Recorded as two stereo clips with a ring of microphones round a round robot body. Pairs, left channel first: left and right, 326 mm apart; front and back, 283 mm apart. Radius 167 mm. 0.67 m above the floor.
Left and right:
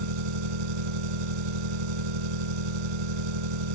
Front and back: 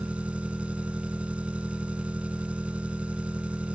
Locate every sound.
0.0 s an engine running: 95° right